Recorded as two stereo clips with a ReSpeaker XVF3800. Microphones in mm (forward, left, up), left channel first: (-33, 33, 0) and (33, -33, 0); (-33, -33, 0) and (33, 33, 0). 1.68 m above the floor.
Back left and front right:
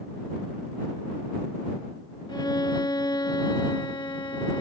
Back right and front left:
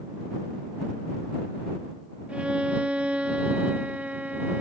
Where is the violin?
120° left.